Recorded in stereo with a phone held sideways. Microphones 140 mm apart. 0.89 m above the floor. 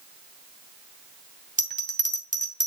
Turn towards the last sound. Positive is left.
turn(degrees=-60)  # may be behind; listen again after turning